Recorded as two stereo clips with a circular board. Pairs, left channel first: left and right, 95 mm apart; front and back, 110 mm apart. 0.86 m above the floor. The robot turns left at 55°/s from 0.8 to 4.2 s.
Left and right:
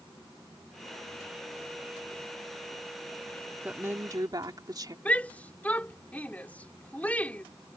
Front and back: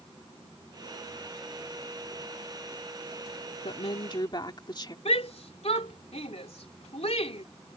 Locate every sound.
3.6 s a woman speaking: 15° right; by 5.0 s 45° right
5.0 s a shout: 15° left